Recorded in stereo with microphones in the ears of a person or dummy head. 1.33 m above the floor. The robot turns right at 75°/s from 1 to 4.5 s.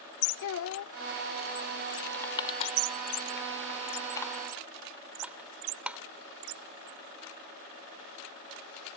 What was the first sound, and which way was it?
A child speaking, 65° left (ahead or behind).